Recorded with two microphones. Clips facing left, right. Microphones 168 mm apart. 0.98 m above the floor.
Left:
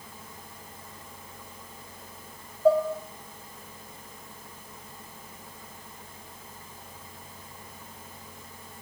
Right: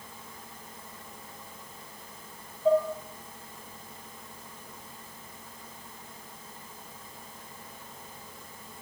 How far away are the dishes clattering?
About 0.6 m.